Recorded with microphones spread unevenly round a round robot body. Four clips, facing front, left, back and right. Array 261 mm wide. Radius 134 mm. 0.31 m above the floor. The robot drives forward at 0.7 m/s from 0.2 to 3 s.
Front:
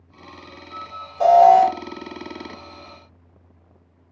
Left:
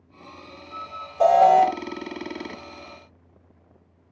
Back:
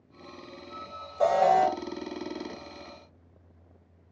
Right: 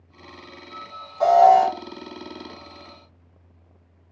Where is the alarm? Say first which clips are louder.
Right 1 dB, front 10 dB; 90° left, 2.5 m; by 1.7 s 100° left, 2.5 m.